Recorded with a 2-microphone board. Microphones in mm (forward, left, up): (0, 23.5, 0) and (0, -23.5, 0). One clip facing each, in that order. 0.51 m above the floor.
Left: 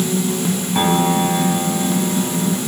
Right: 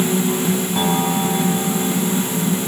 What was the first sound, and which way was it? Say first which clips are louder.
A piano: left 6 dB; 20° left (ahead or behind).